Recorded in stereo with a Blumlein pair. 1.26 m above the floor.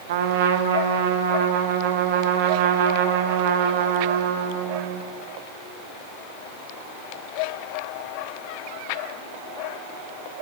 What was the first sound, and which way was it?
A trumpet, 50° right.